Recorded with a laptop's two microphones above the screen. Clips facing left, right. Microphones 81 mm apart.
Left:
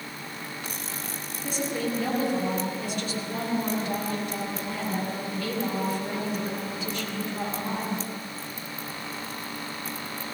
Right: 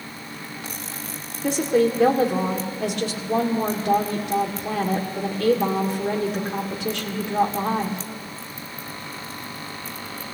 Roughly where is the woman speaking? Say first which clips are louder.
Right 10 dB; right.